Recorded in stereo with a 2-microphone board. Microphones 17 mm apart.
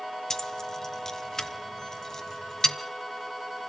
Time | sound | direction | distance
0.3 | keys jangling | 30° left (ahead or behind) | 1.3 m